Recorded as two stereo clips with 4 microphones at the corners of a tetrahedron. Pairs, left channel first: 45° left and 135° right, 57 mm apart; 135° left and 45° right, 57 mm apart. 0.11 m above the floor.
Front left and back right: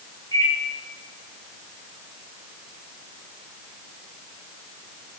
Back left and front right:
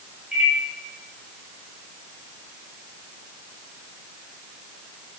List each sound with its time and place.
0.3 s a microwave: 35° left, 7.5 m